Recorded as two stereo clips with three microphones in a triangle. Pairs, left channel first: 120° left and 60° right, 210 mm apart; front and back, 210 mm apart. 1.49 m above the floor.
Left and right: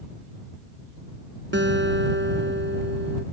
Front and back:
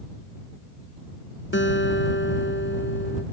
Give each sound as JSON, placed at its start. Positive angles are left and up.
{"t": 1.5, "sound": "a guitar", "azimuth_deg": -30}